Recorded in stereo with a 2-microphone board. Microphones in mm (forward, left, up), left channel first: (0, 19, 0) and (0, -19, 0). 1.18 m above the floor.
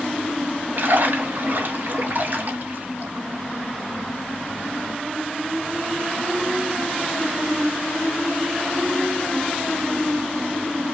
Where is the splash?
55° right (ahead or behind), 1.7 m.